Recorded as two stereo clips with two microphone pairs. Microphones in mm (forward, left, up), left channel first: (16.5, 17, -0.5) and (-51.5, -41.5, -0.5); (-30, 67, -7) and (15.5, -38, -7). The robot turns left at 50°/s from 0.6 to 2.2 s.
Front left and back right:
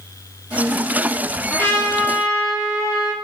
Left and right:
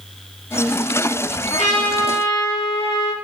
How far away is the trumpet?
About 6 m.